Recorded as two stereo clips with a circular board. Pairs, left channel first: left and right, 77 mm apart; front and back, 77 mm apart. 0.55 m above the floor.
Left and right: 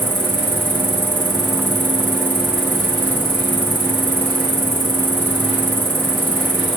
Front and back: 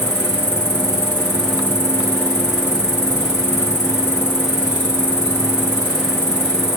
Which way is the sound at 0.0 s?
40° right.